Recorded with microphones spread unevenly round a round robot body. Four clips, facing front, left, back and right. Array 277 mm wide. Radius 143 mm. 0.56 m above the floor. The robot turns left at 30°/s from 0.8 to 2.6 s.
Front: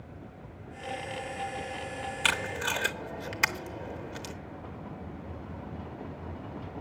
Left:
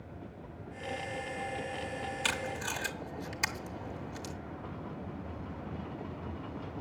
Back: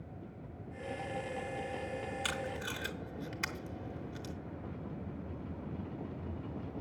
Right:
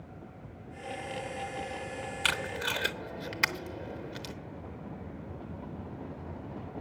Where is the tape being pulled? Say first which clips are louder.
Right 6 dB, front 7 dB; 20° right, 1.0 m; by 4.3 s 30° right, 1.0 m.